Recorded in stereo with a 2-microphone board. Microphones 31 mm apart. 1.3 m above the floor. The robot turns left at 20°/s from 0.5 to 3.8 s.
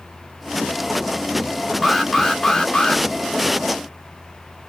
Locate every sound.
1.8 s an alarm: 5° right (ahead or behind), 1.0 m; by 3.0 s 20° left (ahead or behind), 1.0 m